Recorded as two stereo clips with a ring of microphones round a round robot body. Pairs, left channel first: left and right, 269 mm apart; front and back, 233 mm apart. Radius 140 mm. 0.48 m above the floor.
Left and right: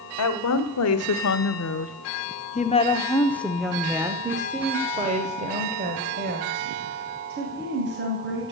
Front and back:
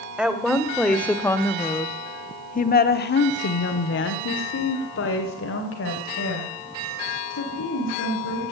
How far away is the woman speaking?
About 1.8 m.